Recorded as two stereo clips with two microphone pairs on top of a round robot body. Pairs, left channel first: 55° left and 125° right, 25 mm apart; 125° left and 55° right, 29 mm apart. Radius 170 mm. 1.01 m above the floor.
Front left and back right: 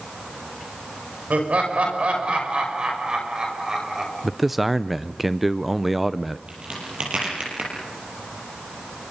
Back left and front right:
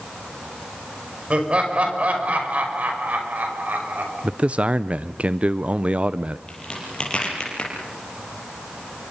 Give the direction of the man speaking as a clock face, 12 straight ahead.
1 o'clock.